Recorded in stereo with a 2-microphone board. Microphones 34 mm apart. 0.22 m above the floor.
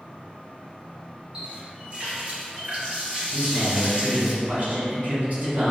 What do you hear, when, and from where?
1.3 s a running tap: 30° right (ahead or behind), 1.5 m
3.3 s a man speaking: 55° right (ahead or behind), 1.7 m